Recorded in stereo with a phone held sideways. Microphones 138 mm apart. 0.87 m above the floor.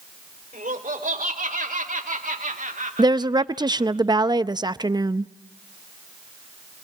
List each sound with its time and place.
0.5 s laughter: 75° right (ahead or behind), 3 m; by 4.0 s 60° right (ahead or behind), 1.4 m
3.0 s a woman speaking: 30° right (ahead or behind), 0.6 m